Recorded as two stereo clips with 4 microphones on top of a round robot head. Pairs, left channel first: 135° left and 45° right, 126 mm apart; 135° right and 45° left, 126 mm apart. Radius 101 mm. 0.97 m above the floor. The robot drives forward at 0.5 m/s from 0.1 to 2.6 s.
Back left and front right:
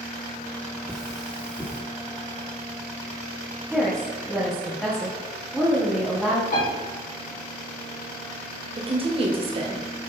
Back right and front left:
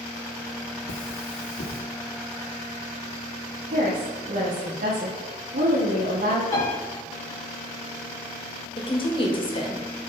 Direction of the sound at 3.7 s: 45° left.